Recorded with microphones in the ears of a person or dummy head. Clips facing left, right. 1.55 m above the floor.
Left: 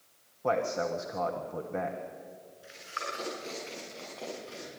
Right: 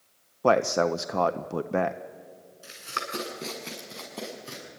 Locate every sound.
0.4 s a man speaking: 75° right (ahead or behind), 0.5 m
2.6 s running footsteps: 70° right (ahead or behind), 5.5 m; by 4.7 s 75° right (ahead or behind), 7 m